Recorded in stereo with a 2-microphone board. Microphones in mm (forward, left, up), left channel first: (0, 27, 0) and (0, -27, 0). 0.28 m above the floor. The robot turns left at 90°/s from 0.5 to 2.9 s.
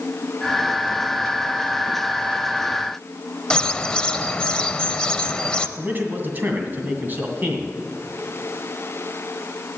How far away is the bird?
About 0.6 m.